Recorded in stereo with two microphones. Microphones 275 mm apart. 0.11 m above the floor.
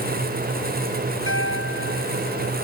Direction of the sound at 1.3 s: 55° right (ahead or behind).